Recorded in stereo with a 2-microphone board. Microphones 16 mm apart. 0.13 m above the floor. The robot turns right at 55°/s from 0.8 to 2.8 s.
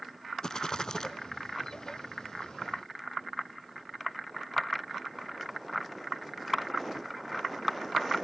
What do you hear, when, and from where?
0.4 s a rattle: 40° left (ahead or behind), 0.5 m; by 1.1 s 35° left (ahead or behind), 0.5 m